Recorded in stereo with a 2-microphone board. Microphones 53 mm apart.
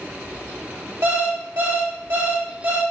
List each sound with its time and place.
1.0 s an alarm clock: 50° right (ahead or behind), 1.1 m